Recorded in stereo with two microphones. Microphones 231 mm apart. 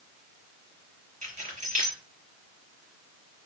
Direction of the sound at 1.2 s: 35° right (ahead or behind).